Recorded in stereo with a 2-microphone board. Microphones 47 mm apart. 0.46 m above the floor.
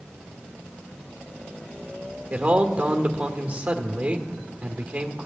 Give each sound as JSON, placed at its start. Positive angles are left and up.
{"t": 2.3, "sound": "a man speaking", "side_deg": -30, "distance_m": 1.4}